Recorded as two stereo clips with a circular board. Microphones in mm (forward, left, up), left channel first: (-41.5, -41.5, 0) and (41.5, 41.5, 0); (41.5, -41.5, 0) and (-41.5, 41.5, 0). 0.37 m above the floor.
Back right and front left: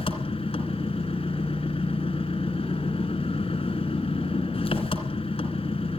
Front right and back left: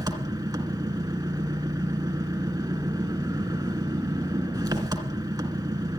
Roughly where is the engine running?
Behind.